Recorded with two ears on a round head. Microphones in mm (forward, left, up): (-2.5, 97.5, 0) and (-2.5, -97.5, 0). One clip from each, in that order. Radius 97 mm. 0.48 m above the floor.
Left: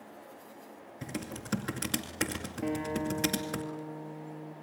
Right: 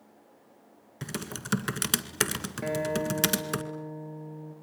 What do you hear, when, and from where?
1.0 s typing on a keyboard: 75° right (ahead or behind), 2.0 m
2.6 s a guitar: 65° right (ahead or behind), 5 m